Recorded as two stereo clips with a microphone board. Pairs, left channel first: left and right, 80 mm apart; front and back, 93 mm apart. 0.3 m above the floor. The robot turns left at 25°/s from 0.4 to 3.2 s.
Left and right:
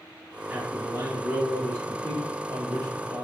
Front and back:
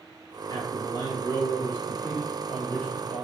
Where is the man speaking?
20° right, 2.5 m; by 3.2 s 90° right, 2.5 m.